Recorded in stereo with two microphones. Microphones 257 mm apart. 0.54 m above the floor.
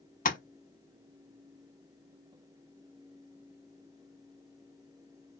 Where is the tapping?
30° left (ahead or behind), 0.6 m.